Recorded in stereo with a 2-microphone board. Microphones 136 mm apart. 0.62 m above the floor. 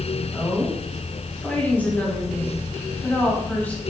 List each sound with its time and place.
0.3 s a woman speaking: 10° left (ahead or behind), 2 m